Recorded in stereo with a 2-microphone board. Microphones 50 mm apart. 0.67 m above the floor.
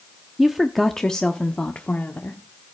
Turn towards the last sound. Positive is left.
turn(degrees=40)  # may be behind; listen again after turning